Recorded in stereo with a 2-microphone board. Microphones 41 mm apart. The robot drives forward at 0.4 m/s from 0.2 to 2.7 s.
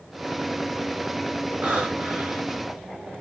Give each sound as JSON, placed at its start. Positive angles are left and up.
{"t": 1.6, "sound": "breathing", "side_deg": -30, "distance_m": 1.2}